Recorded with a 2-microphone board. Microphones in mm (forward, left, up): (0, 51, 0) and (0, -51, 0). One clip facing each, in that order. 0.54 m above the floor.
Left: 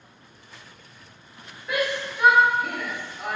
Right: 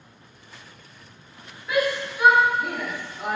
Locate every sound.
1.7 s a shout: 5° right (ahead or behind), 1.3 m; by 3.4 s 35° right (ahead or behind), 0.9 m